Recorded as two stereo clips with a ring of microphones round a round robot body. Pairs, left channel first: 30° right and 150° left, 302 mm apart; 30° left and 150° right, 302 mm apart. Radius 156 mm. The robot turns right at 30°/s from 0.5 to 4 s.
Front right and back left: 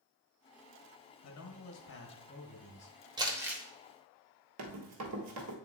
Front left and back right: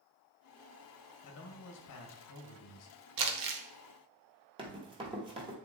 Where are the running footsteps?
140° left, 1.3 m.